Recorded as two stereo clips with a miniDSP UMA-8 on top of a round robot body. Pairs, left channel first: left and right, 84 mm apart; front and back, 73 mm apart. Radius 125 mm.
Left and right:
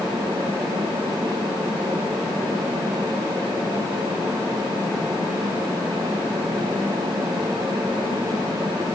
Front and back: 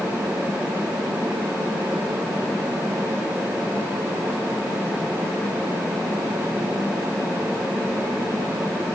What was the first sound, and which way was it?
Only background noise.